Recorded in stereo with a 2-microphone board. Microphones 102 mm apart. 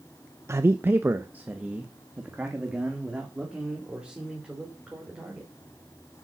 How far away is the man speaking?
About 0.5 m.